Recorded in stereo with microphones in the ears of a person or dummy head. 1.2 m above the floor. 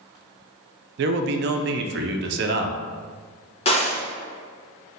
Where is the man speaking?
55° right (ahead or behind), 0.5 m.